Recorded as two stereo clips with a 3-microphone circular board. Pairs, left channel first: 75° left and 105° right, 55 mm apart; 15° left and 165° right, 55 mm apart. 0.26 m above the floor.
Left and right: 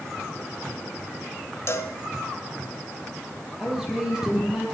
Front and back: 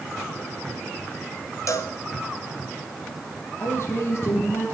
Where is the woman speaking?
25° right, 6.5 m.